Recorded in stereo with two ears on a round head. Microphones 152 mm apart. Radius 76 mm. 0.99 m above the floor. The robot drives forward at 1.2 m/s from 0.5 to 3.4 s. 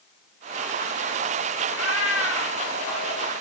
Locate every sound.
1.7 s a cat meowing: 80° left, 4 m; by 3.3 s 70° left (ahead or behind), 4 m